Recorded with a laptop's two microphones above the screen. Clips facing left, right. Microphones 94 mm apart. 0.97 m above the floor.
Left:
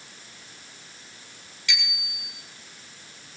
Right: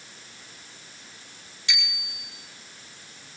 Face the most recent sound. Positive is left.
turn(degrees=-25)  # may be behind; listen again after turning